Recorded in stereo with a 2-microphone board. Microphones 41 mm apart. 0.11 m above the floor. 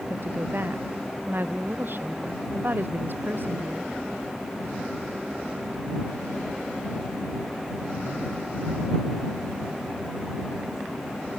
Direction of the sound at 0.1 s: 55° right (ahead or behind).